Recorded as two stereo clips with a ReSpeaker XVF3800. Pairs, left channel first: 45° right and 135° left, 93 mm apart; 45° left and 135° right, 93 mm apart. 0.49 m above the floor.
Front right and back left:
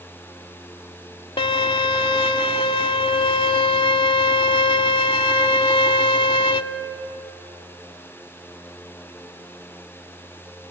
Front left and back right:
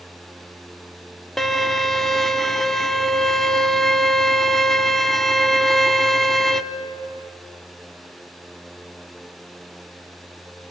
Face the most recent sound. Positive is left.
turn(degrees=-40)